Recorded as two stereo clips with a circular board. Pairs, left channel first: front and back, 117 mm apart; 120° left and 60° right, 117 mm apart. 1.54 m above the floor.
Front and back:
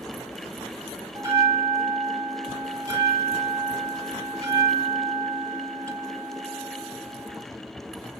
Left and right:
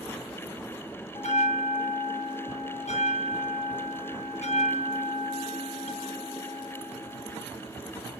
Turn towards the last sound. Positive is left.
turn(degrees=120)